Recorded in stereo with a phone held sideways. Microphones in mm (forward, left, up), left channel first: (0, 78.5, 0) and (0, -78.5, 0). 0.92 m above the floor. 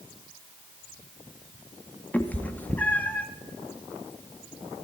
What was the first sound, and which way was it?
A cat meowing, 10° left (ahead or behind).